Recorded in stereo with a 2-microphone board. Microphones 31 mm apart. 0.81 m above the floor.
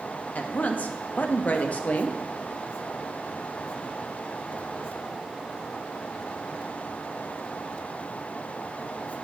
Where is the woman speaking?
50° left (ahead or behind), 0.6 m.